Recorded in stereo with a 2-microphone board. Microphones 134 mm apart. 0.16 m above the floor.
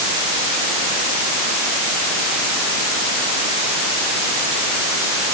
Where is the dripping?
No dripping in this recording.